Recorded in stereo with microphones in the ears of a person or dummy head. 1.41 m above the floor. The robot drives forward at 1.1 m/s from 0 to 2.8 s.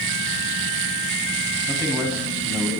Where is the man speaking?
15° right (ahead or behind), 8 m; by 2.7 s 20° right (ahead or behind), 7 m.